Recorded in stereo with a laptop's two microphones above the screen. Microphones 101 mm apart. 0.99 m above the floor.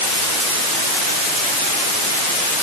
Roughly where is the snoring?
No snoring in this recording.